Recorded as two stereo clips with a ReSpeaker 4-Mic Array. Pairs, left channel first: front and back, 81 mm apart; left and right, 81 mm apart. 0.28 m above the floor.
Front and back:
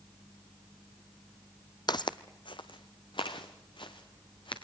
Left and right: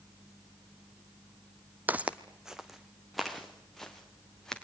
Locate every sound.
1.9 s footsteps: 25° right, 0.6 m; by 4.5 s 5° left, 2.5 m